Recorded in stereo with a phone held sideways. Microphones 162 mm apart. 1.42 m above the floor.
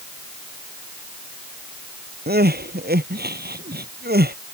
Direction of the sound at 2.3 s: 80° right.